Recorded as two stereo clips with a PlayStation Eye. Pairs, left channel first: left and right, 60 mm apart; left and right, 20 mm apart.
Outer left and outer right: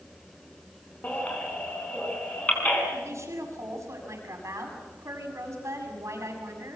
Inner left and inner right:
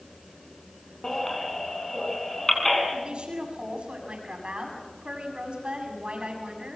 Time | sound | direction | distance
1.0 | a baby crying | 30° left (ahead or behind) | 5.5 m
2.9 | a woman speaking | 55° right (ahead or behind) | 7.5 m